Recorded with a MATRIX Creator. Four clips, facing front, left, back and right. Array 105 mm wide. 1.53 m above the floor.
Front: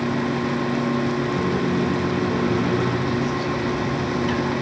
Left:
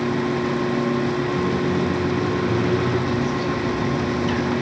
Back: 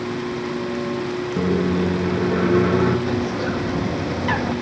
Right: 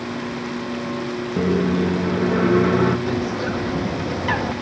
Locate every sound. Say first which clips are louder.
1.4 s a microwave: right 1 dB, back 1 dB; 120° right, 2 m
3.1 s a bird: left 1 dB, even; 130° right, 2.5 m